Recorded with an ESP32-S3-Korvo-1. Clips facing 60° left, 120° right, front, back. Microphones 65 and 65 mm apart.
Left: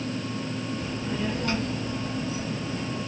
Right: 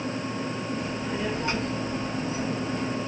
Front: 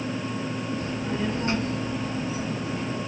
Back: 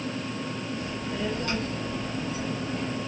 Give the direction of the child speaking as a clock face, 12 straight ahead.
1 o'clock.